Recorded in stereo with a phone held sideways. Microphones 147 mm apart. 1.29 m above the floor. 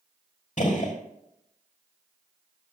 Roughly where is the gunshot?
Left.